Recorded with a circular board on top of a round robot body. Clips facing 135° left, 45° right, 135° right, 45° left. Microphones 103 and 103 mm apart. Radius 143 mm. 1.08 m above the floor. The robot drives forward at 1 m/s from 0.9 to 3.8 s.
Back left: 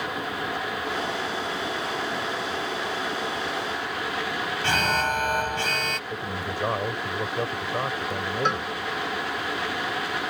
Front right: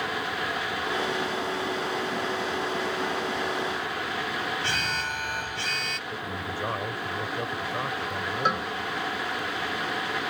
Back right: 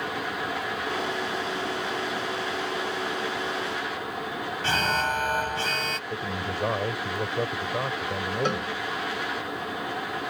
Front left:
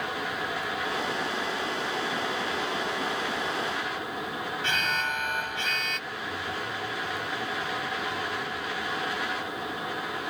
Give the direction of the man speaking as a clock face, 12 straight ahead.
5 o'clock.